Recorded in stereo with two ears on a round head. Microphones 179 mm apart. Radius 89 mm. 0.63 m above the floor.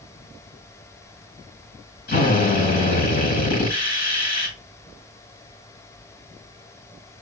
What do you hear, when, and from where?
2.1 s a drill: 55° left (ahead or behind), 5.5 m